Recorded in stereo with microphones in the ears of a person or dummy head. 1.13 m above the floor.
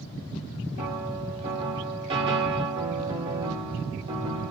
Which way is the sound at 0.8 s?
30° right (ahead or behind).